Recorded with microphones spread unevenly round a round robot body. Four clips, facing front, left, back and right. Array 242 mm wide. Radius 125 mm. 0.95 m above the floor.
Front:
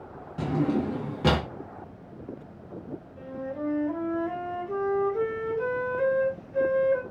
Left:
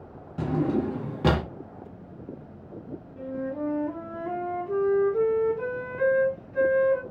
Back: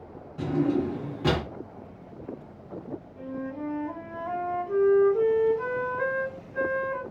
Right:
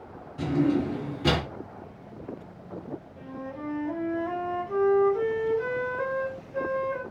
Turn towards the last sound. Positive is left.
turn(degrees=95)